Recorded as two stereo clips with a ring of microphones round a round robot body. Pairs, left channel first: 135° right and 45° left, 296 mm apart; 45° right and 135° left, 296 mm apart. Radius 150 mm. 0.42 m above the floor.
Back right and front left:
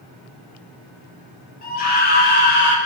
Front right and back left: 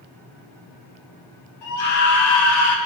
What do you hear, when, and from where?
1.6 s a scream: 75° right, 4.5 m; by 2.8 s 85° right, 3.5 m